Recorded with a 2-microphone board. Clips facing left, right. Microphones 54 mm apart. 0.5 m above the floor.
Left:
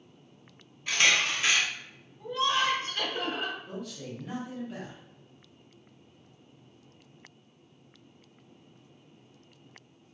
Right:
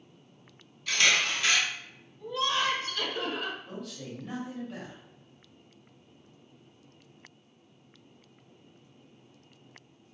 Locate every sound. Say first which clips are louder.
0.9 s a camera shutter: even; 25° left (ahead or behind), 0.9 m
2.2 s laughter: left 2 dB; 40° left (ahead or behind), 1.2 m
3.7 s a man speaking: left 1 dB; 5° left (ahead or behind), 1.1 m